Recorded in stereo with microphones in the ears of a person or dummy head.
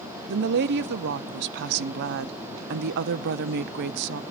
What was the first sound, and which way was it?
A woman speaking, 65° right (ahead or behind).